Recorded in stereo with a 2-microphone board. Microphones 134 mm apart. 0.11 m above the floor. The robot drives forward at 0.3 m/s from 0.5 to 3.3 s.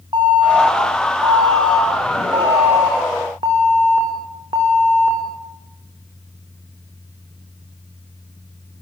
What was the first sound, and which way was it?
An alarm, 35° right (ahead or behind).